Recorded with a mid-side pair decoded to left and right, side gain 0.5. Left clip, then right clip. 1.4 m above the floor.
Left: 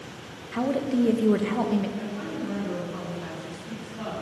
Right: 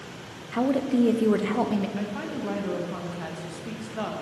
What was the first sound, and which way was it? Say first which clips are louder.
A woman speaking: right 2 dB; 10° right.